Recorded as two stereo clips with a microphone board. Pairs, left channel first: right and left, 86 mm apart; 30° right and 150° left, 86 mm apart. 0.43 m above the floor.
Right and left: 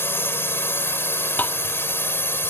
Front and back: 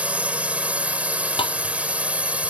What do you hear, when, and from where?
0.0 s a drone: 140° right
1.4 s tapping: 20° right